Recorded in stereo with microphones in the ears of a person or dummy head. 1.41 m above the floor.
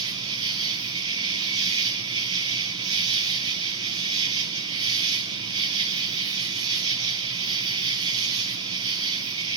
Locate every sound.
0.0 s an insect: 20° right (ahead or behind), 0.9 m